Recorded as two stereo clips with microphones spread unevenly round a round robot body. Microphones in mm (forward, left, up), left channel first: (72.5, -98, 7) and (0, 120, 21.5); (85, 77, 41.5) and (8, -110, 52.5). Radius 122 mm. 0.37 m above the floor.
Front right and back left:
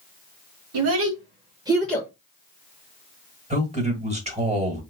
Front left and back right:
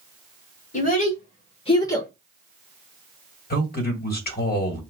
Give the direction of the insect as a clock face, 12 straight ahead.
I don't hear an insect.